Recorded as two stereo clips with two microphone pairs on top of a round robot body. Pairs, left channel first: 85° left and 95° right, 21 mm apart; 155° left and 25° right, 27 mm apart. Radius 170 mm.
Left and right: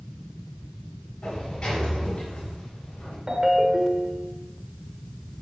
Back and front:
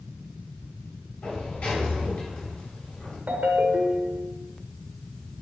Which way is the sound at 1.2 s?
130° left.